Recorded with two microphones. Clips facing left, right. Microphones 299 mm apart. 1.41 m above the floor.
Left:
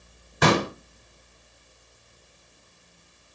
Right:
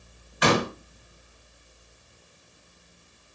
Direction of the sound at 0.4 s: 55° left (ahead or behind).